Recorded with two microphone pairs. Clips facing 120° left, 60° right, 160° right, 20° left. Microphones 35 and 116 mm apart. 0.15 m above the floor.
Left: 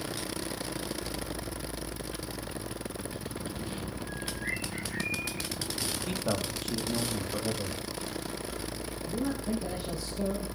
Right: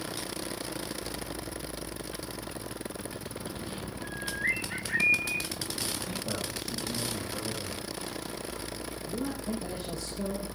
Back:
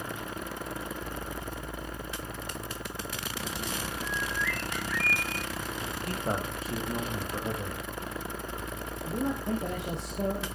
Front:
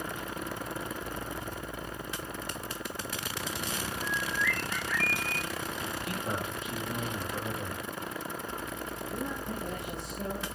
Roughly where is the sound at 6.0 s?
Behind left.